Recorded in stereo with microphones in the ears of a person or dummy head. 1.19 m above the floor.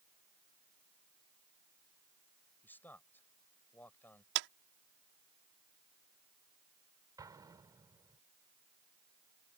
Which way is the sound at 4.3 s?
70° right (ahead or behind).